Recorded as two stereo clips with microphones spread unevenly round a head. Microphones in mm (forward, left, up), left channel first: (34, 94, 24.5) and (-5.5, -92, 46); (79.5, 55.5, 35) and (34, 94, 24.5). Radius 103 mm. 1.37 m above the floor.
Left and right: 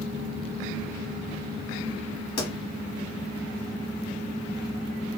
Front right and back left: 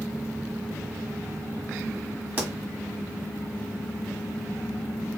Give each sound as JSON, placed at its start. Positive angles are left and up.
{"t": 2.4, "sound": "a pop", "azimuth_deg": 80, "distance_m": 1.2}